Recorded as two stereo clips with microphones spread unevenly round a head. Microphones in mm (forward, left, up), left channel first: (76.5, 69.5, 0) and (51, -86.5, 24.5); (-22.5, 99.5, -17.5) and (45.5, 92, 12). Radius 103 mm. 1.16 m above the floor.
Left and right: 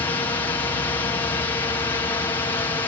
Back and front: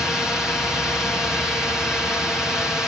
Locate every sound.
0.0 s a drone: 120° left